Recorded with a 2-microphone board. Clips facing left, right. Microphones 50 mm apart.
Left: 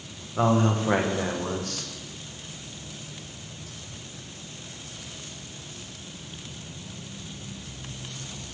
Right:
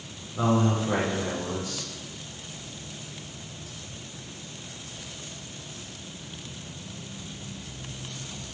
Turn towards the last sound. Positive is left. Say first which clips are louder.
# left 1 dB
turn(degrees=55)  # may be behind; listen again after turning